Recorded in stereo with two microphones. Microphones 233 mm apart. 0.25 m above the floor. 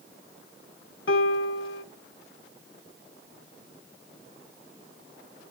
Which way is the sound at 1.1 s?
65° left (ahead or behind).